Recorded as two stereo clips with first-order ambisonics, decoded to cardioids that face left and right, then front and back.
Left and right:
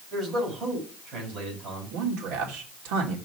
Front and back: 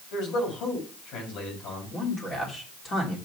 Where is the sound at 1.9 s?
70° right, 3 m.